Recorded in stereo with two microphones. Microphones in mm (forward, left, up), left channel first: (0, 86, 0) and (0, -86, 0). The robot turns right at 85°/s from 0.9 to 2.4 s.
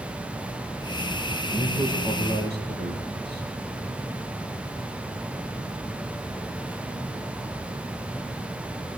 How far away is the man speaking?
About 8 m.